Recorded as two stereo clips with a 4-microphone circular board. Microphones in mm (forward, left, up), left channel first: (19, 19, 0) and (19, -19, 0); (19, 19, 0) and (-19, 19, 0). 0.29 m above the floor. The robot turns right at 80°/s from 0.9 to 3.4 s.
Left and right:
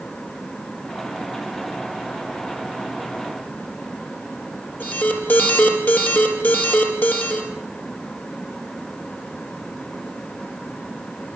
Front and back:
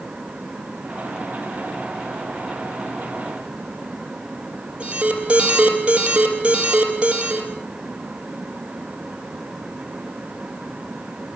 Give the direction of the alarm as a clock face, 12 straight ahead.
8 o'clock.